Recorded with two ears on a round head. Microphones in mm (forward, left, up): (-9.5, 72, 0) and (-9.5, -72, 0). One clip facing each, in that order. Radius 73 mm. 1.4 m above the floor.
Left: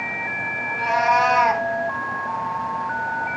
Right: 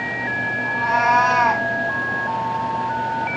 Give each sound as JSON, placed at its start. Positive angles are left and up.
{"t": 0.7, "sound": "a cat meowing", "side_deg": 30, "distance_m": 2.0}